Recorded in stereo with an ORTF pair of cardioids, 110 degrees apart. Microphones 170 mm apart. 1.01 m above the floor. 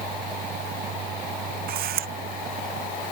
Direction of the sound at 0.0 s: 60° right.